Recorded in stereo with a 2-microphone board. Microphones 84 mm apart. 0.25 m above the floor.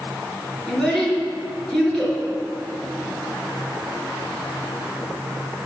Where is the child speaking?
5° left (ahead or behind), 3 m.